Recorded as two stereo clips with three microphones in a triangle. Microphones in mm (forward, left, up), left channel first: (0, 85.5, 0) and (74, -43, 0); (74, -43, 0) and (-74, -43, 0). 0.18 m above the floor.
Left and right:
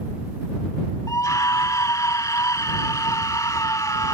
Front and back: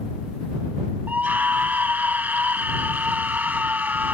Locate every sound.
1.1 s a scream: 120° left